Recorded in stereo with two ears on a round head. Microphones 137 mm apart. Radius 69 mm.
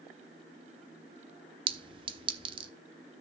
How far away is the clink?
About 0.5 m.